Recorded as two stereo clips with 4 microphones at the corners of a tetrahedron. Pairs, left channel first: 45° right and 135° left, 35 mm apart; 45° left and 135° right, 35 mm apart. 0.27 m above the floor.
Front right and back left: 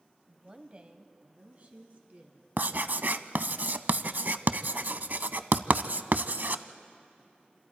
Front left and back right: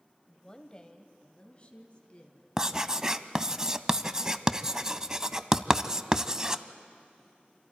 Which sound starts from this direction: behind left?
Writing, at 2.6 s.